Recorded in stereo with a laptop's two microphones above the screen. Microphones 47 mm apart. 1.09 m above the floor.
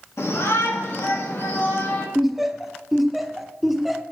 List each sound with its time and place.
0.2 s a shout: 70° left (ahead or behind), 2 m; by 2.0 s 30° left (ahead or behind), 1.8 m
2.1 s laughter: 5° right (ahead or behind), 0.7 m